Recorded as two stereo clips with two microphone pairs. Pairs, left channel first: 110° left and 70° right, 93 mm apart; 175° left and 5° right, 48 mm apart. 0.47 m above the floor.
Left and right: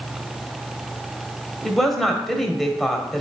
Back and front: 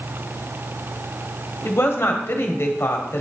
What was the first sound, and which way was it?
A woman speaking, 165° right.